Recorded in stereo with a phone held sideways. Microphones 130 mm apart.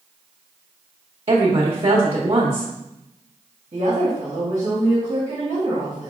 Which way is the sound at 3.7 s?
55° right (ahead or behind).